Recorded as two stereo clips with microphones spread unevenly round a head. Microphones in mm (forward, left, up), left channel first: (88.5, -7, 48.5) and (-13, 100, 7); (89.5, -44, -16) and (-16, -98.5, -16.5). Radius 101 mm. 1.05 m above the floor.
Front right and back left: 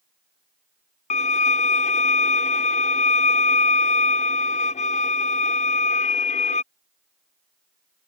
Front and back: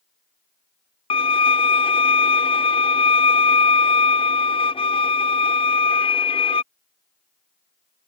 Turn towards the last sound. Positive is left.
turn(degrees=-15)